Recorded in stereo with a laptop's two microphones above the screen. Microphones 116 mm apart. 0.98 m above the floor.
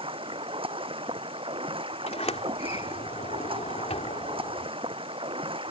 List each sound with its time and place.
0.0 s running water: 55° right (ahead or behind)
2.1 s a sliding door: 75° left (ahead or behind)